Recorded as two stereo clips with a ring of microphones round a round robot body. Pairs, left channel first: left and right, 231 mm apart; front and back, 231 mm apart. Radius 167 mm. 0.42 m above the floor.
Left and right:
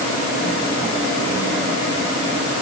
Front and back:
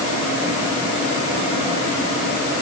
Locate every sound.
Only background noise.